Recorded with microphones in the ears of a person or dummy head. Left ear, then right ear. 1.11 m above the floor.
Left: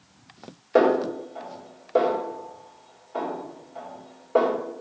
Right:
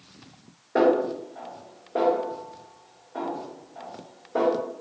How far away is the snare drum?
About 2.0 m.